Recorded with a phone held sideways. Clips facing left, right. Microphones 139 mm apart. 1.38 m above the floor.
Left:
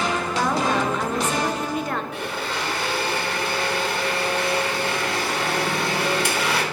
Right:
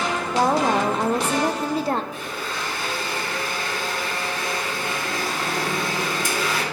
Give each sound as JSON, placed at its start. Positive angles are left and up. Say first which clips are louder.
{"t": 0.3, "sound": "a woman speaking", "louder": "right 4 dB", "side_deg": -35, "distance_m": 0.5}
{"t": 2.1, "sound": "a blender", "louder": "left 3 dB", "side_deg": 70, "distance_m": 1.7}